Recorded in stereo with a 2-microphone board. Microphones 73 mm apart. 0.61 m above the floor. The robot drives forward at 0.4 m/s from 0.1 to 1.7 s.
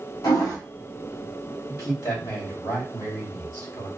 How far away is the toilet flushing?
About 1.5 m.